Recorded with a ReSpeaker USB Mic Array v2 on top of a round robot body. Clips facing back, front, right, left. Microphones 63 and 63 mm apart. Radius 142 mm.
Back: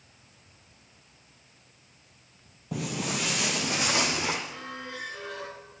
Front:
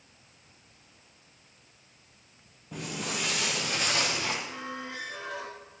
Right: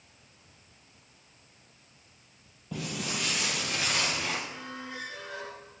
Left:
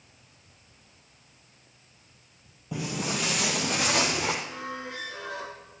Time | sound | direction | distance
2.7 | footsteps | 170° left | 1.2 m
4.5 | a squeak | 70° left | 1.1 m